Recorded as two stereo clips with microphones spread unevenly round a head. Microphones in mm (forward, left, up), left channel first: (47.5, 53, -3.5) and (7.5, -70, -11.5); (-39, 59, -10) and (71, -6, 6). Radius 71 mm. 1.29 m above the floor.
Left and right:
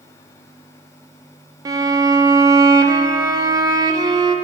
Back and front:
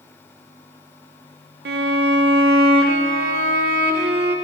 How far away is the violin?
About 0.8 m.